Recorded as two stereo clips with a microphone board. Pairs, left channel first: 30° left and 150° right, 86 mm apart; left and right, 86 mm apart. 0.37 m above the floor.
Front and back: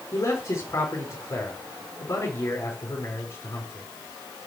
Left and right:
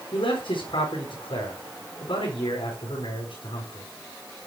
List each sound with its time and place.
0.1 s a man speaking: 85° left, 5 m